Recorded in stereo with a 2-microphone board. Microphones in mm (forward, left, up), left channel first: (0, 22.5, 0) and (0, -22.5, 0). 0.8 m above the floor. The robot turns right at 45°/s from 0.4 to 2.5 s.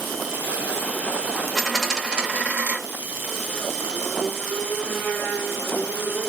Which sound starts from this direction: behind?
A dropped coin, at 1.6 s.